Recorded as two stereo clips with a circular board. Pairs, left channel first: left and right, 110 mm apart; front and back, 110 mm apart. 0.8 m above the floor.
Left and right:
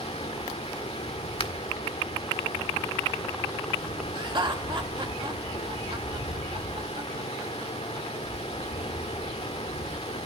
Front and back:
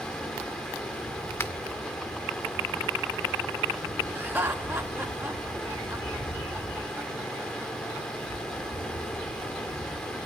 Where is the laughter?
115° right, 1.7 m.